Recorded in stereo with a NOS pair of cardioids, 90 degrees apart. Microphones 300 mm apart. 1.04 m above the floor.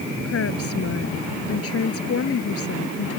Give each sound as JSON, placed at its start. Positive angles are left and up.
{"t": 0.2, "sound": "a woman speaking", "azimuth_deg": 50}